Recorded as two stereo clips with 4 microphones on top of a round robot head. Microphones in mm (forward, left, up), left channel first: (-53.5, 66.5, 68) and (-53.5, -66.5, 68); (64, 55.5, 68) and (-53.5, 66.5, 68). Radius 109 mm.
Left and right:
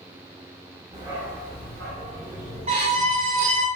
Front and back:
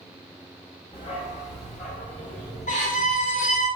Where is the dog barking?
45° right, 0.8 m; by 3.7 s 20° left, 3.5 m.